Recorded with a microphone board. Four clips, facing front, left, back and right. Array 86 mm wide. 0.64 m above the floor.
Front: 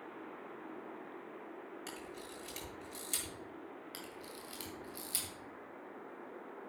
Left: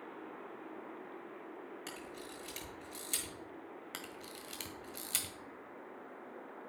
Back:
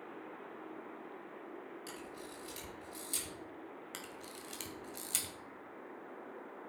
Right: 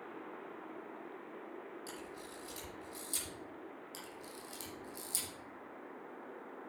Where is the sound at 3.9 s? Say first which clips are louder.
Left 1 dB, even; 110° left, 2.5 m.